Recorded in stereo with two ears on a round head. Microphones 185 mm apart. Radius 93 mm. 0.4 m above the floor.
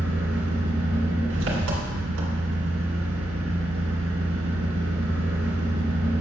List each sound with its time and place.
0.0 s an engine running: 65° right (ahead or behind), 2 m